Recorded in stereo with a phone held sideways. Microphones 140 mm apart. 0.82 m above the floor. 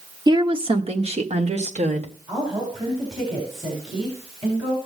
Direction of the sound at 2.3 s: 45° right (ahead or behind).